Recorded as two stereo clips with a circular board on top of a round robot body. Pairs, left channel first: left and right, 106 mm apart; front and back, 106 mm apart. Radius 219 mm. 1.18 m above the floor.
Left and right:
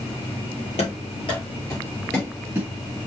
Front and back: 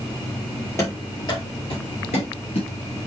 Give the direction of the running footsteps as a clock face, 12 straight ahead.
10 o'clock.